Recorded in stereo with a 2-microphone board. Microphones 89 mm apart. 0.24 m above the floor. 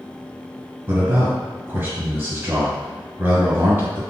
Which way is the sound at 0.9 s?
25° right (ahead or behind).